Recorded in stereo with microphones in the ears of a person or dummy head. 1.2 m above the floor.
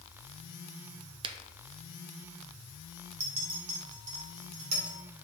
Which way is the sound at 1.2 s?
30° right (ahead or behind).